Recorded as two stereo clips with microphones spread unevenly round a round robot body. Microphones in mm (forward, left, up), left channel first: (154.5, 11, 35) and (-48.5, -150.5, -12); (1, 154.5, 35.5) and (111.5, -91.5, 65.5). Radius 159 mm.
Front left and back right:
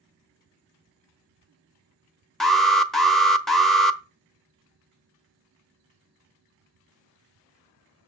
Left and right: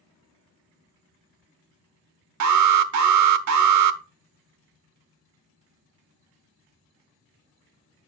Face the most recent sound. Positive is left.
turn(degrees=-55)